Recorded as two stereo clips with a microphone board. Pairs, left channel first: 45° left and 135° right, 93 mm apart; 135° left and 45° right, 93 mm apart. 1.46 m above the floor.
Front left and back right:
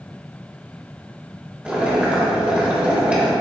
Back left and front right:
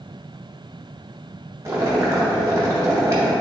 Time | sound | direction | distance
1.6 | boiling | 70° right | 0.9 m